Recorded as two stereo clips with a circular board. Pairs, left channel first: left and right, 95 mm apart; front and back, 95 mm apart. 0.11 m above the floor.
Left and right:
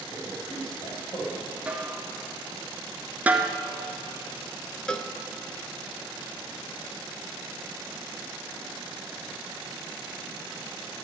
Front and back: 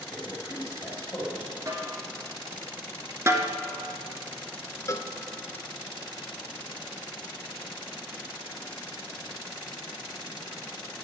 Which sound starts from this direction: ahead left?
A man speaking, at 0.1 s.